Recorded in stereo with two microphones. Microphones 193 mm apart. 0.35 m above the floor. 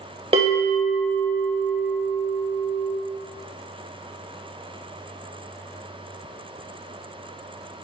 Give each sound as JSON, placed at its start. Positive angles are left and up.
{"t": 0.3, "sound": "a bell", "side_deg": -30, "distance_m": 0.6}